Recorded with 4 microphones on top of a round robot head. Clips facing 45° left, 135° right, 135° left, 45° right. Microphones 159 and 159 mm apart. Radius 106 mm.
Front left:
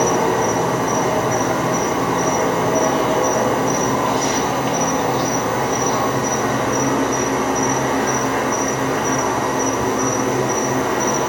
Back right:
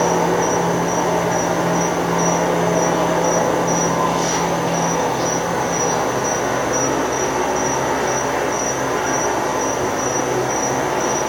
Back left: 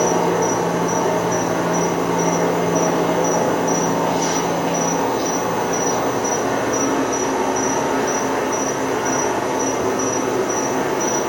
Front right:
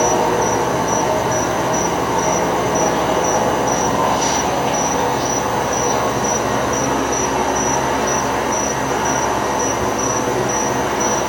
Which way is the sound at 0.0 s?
40° left.